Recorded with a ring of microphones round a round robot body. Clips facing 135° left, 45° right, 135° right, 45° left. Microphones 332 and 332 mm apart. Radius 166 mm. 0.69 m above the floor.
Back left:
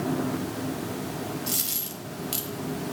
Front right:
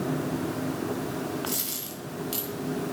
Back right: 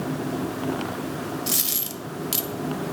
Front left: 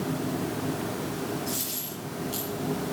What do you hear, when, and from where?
1.5 s a dropped coin: 145° right, 1.1 m